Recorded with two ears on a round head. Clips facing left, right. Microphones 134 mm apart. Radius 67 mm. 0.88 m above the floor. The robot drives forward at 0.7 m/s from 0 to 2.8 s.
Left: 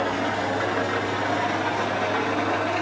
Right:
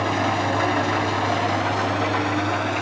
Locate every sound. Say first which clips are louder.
0.0 s an engine running: right 3 dB; 70° right (ahead or behind), 2.0 m; by 2.8 s 50° right (ahead or behind), 2.5 m